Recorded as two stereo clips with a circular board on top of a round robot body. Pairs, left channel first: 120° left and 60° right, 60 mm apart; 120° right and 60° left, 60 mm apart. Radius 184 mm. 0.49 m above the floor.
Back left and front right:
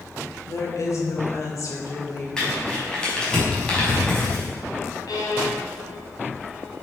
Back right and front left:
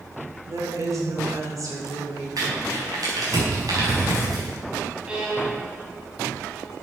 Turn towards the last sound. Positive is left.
turn(degrees=135)